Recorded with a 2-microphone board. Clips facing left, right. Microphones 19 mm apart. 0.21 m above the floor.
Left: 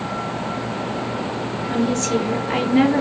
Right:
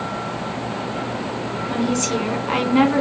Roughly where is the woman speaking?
Right.